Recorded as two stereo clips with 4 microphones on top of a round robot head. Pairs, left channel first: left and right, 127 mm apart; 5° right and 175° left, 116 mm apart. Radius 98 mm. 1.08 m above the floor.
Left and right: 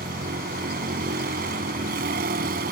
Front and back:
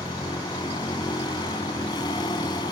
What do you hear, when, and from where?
0.0 s a vehicle: 70° right